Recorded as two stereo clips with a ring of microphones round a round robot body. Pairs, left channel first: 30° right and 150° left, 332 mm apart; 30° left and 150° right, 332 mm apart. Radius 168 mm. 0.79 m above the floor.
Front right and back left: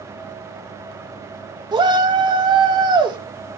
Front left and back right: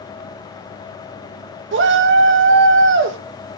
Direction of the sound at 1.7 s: 145° right.